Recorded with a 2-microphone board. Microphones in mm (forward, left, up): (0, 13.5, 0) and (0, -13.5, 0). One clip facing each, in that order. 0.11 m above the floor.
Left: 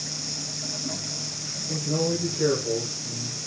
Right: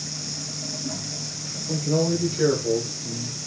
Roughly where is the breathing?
I don't hear breathing.